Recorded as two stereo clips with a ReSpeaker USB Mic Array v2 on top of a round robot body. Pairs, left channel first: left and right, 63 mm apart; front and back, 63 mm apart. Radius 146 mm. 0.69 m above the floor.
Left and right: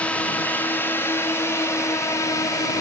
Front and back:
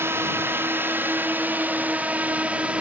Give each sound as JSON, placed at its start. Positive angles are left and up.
{"t": 0.0, "sound": "a drone", "azimuth_deg": 150}